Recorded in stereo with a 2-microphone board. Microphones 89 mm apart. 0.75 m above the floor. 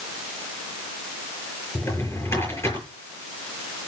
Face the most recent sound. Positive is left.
turn(degrees=30)  # may be behind; listen again after turning